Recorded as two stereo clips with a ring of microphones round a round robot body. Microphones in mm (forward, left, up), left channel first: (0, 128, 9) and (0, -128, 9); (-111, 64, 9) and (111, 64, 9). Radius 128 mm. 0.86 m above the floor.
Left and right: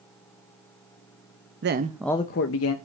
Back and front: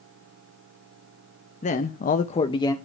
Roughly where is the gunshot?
No gunshot in this recording.